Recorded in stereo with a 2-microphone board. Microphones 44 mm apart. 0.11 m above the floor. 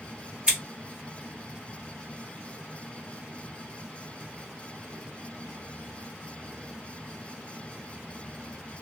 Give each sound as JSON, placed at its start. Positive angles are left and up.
{"t": 0.5, "sound": "scissors", "side_deg": -25, "distance_m": 2.0}